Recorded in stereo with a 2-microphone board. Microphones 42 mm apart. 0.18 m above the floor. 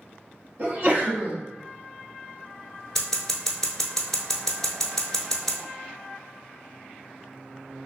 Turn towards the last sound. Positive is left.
turn(degrees=10)  # may be behind; listen again after turning